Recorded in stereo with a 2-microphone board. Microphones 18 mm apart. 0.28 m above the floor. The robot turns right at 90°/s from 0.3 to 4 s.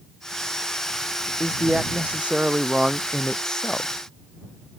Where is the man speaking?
155° right; by 3.9 s 70° left.